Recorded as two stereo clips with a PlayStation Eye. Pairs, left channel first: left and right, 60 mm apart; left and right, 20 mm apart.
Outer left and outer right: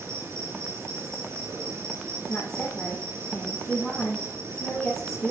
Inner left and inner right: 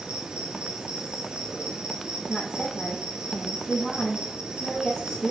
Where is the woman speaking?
25° left (ahead or behind), 5.5 m.